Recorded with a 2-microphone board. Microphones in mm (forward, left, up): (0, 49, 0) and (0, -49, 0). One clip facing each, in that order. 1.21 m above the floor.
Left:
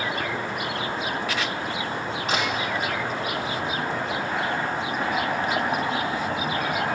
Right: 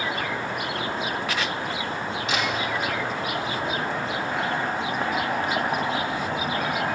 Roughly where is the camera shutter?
Left.